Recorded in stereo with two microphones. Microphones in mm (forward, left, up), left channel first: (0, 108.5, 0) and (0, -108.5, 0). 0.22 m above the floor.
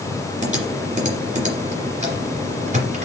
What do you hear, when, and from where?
0.4 s typing on a keyboard: 35° right (ahead or behind), 2.5 m